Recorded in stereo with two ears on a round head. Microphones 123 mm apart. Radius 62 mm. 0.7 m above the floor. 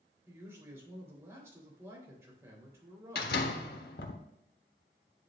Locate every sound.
0.3 s a man speaking: 20° right (ahead or behind), 3.5 m
3.1 s a door slam: 80° left, 1.4 m